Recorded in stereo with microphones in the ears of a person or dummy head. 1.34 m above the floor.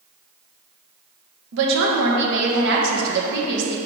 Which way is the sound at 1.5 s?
70° right (ahead or behind).